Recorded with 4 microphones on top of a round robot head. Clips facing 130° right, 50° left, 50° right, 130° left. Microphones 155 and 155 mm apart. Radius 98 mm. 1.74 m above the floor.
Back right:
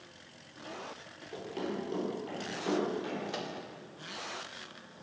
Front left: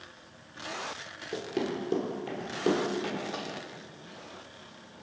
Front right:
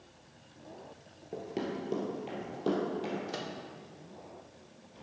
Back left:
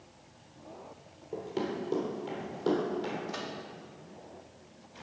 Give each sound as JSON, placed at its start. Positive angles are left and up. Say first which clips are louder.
{"t": 1.3, "sound": "running footsteps", "louder": "front left 5 dB, back left 2 dB", "azimuth_deg": 20, "distance_m": 2.0}
{"t": 3.3, "sound": "a microwave", "louder": "front left 1 dB, even", "azimuth_deg": -85, "distance_m": 0.7}